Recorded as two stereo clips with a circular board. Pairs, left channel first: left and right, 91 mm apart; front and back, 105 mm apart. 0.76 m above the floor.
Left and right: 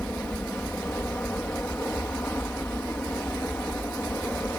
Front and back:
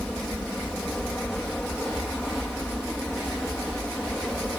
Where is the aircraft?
70° left; by 4.6 s 75° left.